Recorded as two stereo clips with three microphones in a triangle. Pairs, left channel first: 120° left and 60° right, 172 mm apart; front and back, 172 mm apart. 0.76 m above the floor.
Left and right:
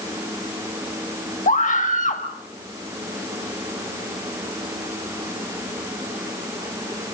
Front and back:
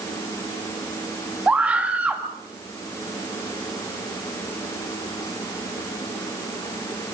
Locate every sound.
1.5 s a scream: 100° left, 1.4 m